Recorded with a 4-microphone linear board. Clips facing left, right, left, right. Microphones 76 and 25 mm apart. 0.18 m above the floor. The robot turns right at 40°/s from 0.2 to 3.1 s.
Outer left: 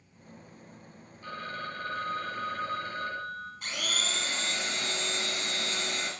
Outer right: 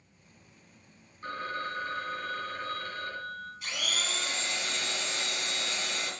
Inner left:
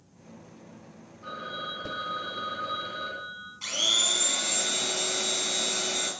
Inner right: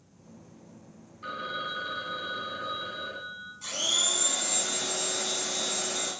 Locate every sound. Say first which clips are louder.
1.2 s a phone ringing: outer right 3 dB, inner right 2 dB; 50° right, 2 m; by 3.5 s 25° left, 2 m
3.6 s a blender: outer left 1 dB, inner left 3 dB; 45° left (ahead or behind), 3 m